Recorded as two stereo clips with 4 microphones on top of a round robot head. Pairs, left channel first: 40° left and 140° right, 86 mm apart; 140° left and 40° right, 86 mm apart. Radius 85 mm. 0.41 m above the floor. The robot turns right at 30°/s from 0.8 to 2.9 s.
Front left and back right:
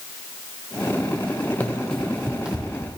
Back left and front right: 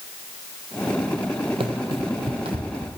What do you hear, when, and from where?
1.6 s running footsteps: 30° right, 0.8 m; by 3.0 s 60° right, 1.3 m